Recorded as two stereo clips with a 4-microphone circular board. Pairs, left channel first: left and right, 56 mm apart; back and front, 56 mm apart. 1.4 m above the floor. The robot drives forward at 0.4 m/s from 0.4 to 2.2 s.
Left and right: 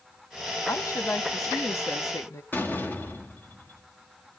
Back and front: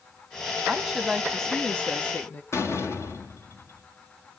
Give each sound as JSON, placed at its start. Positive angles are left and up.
{"t": 0.7, "sound": "a woman speaking", "azimuth_deg": 80, "distance_m": 0.9}
{"t": 2.5, "sound": "a door slam", "azimuth_deg": 145, "distance_m": 1.7}